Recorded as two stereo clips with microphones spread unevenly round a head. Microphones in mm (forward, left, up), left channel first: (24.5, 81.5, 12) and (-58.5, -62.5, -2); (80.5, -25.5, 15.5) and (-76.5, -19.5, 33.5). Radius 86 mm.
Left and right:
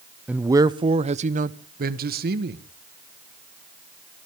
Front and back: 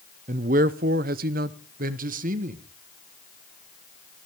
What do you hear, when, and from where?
0.3 s a man speaking: 155° left, 0.6 m; by 2.6 s 145° right, 1.4 m